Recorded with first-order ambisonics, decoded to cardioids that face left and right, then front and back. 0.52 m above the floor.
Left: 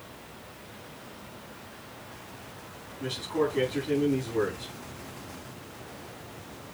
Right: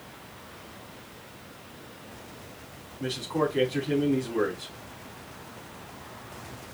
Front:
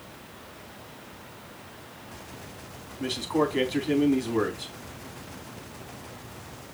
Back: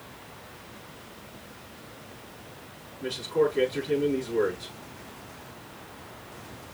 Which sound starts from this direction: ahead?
A man speaking, at 3.0 s.